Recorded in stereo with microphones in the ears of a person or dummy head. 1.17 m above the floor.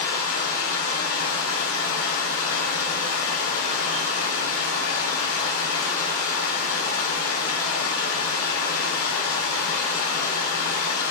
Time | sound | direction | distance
0.0 | running water | 70° left (ahead or behind) | 0.8 m